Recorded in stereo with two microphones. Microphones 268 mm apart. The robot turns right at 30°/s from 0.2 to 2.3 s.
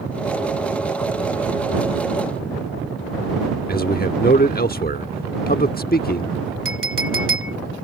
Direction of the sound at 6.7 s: 50° right (ahead or behind).